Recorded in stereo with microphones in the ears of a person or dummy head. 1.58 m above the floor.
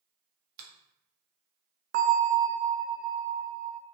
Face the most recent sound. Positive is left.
turn(degrees=-45)  # may be behind; listen again after turning